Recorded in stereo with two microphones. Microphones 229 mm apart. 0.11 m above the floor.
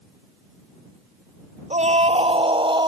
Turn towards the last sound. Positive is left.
turn(degrees=-20)  # may be behind; listen again after turning